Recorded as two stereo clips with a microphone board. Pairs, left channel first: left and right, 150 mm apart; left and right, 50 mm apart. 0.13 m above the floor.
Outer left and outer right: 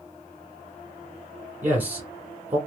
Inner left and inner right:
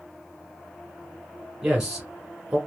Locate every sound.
1.6 s a man speaking: 10° right (ahead or behind), 1.1 m